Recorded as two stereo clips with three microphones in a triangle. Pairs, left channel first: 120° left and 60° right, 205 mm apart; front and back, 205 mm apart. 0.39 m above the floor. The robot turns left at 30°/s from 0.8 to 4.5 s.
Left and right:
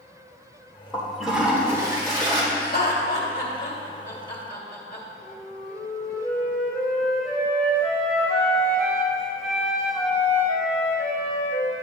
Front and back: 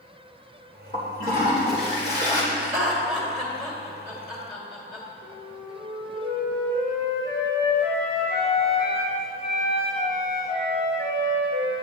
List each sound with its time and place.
0.9 s a toilet flushing: 35° left, 1.8 m; by 2.4 s 10° right, 1.8 m
2.5 s laughter: 120° left, 1.7 m; by 5.0 s 60° left, 1.7 m
5.2 s a flute: 155° right, 3 m